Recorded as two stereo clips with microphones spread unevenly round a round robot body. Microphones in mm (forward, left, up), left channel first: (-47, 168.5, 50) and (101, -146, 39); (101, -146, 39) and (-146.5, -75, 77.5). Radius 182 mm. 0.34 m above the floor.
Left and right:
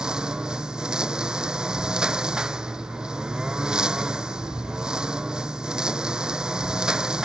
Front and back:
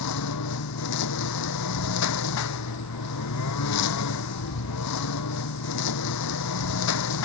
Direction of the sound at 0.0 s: 25° left.